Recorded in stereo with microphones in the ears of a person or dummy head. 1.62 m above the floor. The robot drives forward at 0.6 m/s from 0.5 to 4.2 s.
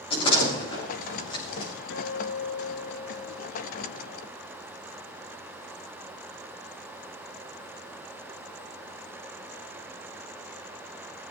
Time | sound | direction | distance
0.1 | a door slam | 30° left (ahead or behind) | 7 m
1.9 | a guitar | 75° left (ahead or behind) | 0.6 m